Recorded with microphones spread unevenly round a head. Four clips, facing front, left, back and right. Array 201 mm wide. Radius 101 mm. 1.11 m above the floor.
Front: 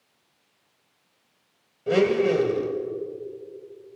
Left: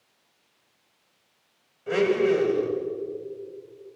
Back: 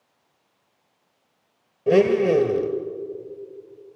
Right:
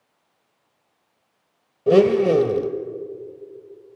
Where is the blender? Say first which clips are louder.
Right 7 dB, back 3 dB; 115° right, 1.3 m.